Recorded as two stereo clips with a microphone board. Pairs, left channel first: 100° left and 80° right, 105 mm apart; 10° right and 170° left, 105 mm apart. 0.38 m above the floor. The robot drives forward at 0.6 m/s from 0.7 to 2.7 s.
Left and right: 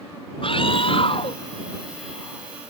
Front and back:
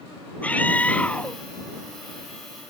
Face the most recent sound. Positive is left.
turn(degrees=70)